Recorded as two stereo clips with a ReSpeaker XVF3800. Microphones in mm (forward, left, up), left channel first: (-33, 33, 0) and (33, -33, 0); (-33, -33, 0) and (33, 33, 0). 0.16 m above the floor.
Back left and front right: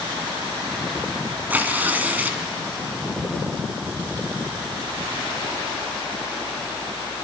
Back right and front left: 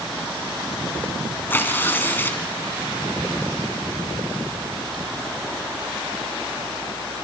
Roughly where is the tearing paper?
Right.